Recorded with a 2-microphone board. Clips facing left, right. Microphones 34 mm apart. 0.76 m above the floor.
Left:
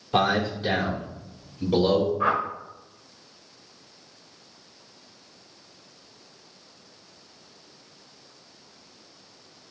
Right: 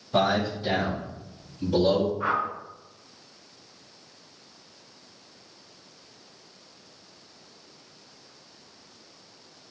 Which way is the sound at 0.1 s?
60° left (ahead or behind).